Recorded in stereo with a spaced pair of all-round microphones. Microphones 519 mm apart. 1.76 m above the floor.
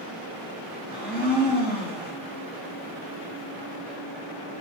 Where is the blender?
20° left (ahead or behind), 3 m.